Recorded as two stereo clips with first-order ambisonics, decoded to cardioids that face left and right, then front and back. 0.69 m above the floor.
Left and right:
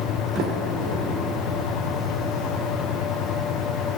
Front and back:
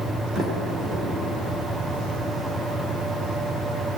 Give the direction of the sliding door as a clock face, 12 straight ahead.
4 o'clock.